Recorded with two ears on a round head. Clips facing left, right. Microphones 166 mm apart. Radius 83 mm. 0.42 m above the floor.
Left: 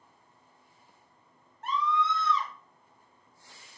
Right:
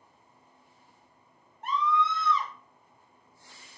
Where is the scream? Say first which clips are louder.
Right 1 dB; 15° right (ahead or behind), 1.0 m.